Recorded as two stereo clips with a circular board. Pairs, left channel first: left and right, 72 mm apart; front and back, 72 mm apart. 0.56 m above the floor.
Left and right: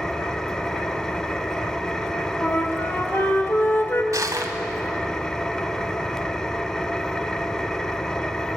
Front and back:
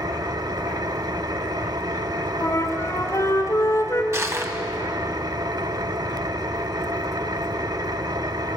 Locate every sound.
0.0 s an engine running: 170° left, 1.1 m
2.4 s a flute: 40° left, 2.5 m
4.1 s crushing: 130° right, 2 m